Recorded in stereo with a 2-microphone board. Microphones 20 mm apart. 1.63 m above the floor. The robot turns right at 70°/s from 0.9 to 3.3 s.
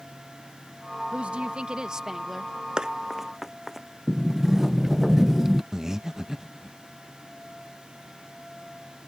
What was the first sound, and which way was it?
A woman speaking, 90° right.